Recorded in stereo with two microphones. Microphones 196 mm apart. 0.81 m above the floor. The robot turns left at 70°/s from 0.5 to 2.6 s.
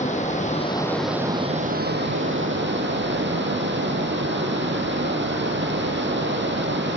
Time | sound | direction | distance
0.0 | running water | 40° left | 3.5 m